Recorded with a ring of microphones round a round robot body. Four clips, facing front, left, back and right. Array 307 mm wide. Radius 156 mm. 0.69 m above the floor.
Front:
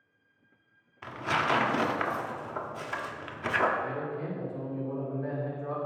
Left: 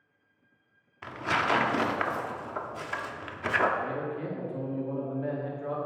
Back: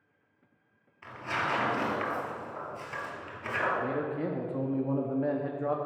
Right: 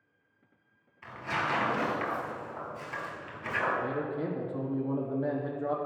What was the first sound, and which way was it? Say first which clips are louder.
Tearing paper: left 4 dB, front 4 dB; 55° left.